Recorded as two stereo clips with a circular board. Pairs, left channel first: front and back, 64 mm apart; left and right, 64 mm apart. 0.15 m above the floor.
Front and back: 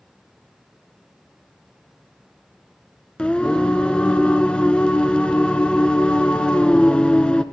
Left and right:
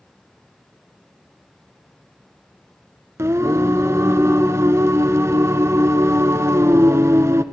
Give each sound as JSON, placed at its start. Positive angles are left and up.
{"t": 3.2, "sound": "singing", "azimuth_deg": -70, "distance_m": 1.4}